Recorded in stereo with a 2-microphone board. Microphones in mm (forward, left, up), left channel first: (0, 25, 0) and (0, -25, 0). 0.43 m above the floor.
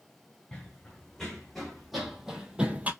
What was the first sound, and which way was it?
Running footsteps, 10° left (ahead or behind).